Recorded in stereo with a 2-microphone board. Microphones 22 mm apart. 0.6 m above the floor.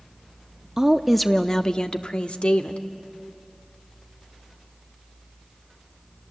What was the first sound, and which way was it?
A woman speaking, 20° right (ahead or behind).